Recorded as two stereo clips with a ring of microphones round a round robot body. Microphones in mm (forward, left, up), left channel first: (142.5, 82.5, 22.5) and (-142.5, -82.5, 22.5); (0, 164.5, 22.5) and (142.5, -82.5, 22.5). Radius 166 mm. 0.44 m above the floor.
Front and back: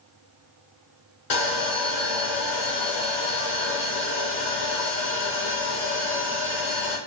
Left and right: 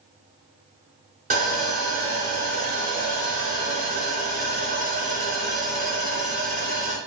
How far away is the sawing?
About 1.1 m.